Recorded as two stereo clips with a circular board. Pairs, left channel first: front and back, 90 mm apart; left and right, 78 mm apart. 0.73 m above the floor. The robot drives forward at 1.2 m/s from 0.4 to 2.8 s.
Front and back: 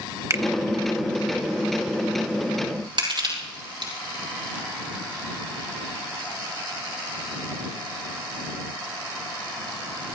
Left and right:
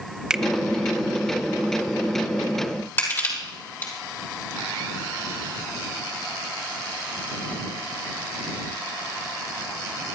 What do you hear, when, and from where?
0.3 s a finger snap: 165° right, 0.8 m; by 0.4 s 170° right, 0.9 m
3.0 s crushing: 150° left, 6 m